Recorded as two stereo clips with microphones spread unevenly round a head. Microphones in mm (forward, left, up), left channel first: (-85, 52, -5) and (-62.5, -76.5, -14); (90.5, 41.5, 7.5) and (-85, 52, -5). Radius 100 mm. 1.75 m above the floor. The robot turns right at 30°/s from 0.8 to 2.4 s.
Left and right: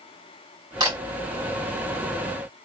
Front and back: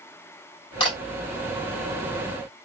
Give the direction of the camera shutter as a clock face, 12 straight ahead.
1 o'clock.